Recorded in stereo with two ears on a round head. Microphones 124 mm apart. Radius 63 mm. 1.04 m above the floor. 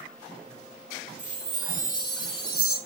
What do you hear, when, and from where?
1.2 s a chime: 75° right (ahead or behind), 4 m